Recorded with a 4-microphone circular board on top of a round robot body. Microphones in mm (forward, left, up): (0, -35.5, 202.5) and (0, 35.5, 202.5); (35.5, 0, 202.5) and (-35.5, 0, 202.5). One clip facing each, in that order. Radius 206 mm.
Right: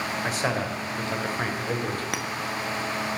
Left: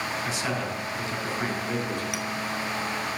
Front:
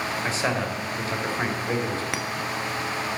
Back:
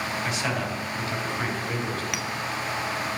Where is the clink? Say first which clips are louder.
Right 1 dB, front 2 dB; 55° right, 1.0 m.